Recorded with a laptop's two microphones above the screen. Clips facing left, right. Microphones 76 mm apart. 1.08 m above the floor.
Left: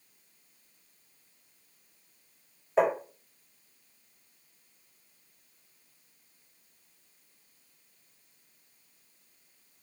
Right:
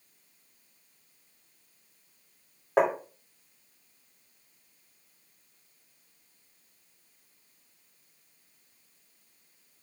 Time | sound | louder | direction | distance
2.8 | tapping | right 1 dB | 80° right | 2.5 m